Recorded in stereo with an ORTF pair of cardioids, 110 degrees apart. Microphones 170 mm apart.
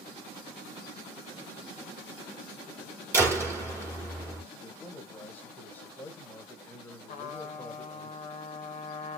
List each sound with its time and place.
3.1 s a door slam: 15° right, 2.5 m
4.5 s a man speaking: 10° left, 1.3 m
7.1 s a trumpet: 45° left, 0.9 m